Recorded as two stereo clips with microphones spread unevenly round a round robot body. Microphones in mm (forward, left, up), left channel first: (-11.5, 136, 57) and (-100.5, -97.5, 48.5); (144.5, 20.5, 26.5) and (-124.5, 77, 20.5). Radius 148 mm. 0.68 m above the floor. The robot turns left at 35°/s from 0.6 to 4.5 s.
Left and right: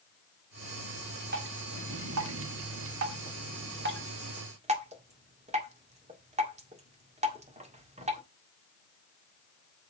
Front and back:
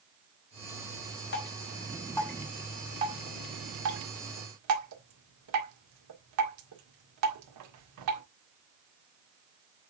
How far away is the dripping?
About 1.9 m.